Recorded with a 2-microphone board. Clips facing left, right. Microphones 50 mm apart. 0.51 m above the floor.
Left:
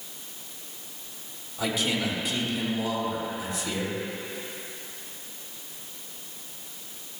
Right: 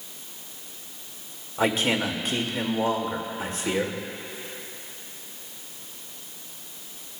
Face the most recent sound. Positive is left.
turn(degrees=-50)  # may be behind; listen again after turning